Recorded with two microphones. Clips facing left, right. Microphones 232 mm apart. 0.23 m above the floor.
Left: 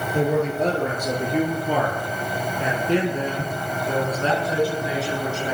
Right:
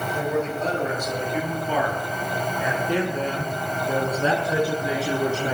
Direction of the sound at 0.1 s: 65° left (ahead or behind).